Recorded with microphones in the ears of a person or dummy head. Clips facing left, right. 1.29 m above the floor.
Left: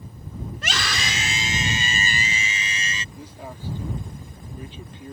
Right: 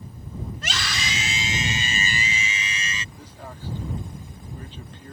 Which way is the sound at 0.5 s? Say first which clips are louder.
Left 5 dB; 55° left (ahead or behind).